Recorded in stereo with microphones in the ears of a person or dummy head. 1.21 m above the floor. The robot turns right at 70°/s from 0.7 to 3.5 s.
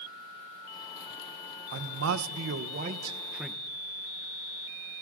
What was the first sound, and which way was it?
A man speaking, 120° right.